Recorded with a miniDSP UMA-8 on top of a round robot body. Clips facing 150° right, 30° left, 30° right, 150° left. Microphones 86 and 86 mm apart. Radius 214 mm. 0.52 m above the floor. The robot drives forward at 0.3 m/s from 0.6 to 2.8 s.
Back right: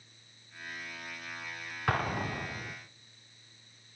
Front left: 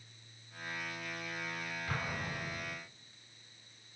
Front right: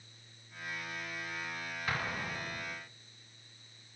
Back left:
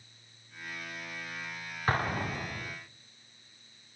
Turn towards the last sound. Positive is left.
turn(degrees=-165)